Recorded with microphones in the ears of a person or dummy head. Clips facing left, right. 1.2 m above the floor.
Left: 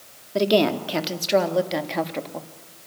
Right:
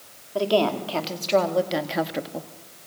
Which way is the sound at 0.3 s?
35° left (ahead or behind).